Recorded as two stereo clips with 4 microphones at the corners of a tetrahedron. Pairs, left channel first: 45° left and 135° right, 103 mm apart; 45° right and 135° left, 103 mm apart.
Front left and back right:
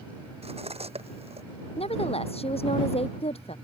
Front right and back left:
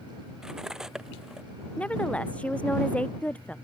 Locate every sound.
0.4 s cutlery clinking: 140° right
1.8 s a woman speaking: 35° left